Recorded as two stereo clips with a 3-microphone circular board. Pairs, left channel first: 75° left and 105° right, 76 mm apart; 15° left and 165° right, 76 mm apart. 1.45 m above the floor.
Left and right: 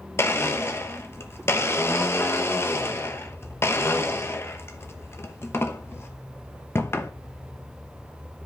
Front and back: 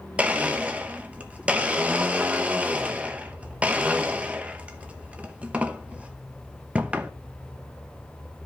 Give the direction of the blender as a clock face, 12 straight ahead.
8 o'clock.